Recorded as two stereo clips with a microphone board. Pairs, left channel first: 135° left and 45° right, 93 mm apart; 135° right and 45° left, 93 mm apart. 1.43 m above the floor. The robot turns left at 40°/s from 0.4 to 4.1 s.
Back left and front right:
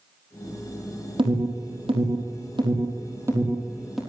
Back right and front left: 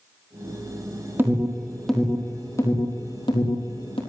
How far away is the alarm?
About 5 m.